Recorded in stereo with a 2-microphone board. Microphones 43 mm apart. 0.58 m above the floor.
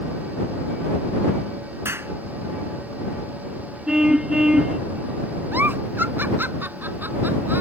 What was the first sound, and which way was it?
A clap, 85° right.